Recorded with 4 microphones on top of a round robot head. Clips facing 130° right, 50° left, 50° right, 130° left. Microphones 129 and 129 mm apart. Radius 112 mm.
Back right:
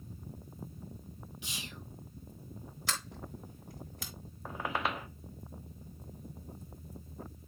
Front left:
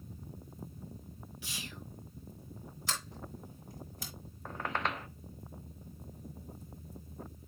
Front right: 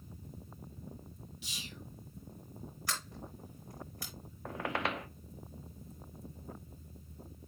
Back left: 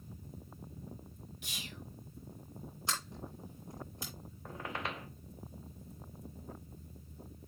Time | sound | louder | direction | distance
1.4 | whispering | front left 1 dB, back left 1 dB | 160° left | 2 m
2.9 | a sliding door | back right 1 dB, back left 1 dB | 160° right | 4 m
4.5 | a squeak | back right 1 dB, front right 5 dB | 45° right | 0.8 m